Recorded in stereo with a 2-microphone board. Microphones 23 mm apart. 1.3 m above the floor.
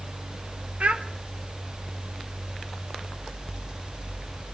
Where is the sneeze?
No sneeze in this recording.